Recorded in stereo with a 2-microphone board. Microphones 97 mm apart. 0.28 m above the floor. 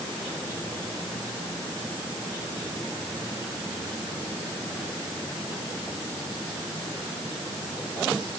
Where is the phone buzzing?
No phone buzzing in this recording.